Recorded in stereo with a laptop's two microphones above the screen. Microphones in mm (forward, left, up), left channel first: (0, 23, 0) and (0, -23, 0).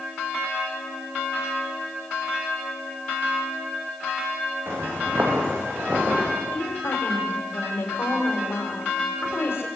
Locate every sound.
4.7 s footsteps: 55° right (ahead or behind), 4 m; by 6.4 s 35° right (ahead or behind), 4.5 m
6.5 s a woman speaking: 60° left (ahead or behind), 4 m